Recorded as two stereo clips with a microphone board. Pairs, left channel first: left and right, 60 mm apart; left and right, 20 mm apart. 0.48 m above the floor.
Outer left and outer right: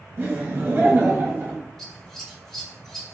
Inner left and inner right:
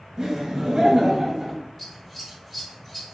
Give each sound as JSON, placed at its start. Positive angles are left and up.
{"t": 0.2, "sound": "laughter", "side_deg": -40, "distance_m": 1.2}
{"t": 1.8, "sound": "scissors", "side_deg": 10, "distance_m": 1.2}